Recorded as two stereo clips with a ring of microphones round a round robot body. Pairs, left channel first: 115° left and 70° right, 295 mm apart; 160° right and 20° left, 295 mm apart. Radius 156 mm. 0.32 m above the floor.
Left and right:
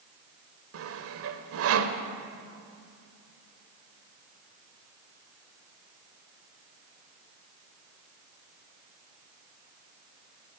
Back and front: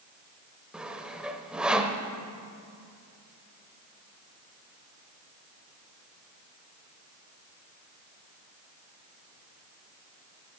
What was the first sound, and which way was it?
Sawing, 65° right.